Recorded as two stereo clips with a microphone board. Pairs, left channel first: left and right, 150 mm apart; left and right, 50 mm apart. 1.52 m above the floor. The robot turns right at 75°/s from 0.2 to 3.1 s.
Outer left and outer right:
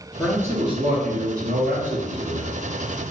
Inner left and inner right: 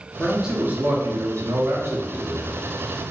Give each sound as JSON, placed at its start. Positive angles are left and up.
{"t": 0.2, "sound": "a man speaking", "azimuth_deg": 180, "distance_m": 0.8}